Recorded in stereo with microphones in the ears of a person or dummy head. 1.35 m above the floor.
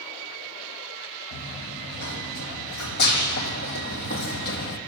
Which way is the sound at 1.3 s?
60° left (ahead or behind).